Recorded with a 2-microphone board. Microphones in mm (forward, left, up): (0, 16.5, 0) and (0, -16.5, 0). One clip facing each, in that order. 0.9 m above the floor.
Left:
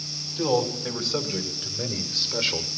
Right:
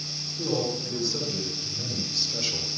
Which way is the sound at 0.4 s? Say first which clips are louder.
Left 4 dB; 70° left (ahead or behind).